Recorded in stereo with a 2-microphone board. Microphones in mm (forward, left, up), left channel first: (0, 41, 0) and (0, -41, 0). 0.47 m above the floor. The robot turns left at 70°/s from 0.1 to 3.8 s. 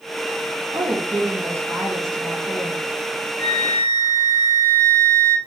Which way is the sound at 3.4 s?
80° right.